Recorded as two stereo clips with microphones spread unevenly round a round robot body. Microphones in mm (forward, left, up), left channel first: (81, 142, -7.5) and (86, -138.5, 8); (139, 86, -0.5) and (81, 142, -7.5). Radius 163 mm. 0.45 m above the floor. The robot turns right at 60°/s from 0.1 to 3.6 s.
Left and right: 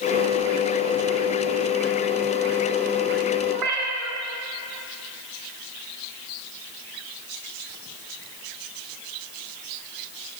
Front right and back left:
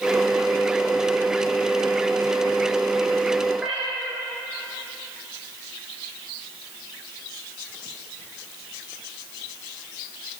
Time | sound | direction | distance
3.5 | a cat meowing | 135° right | 1.0 m